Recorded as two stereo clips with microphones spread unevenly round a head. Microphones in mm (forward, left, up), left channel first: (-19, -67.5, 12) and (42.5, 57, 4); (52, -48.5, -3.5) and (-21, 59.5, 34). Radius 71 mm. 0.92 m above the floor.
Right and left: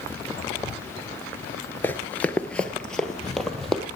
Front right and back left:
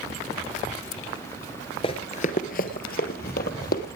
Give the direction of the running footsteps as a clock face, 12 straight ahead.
3 o'clock.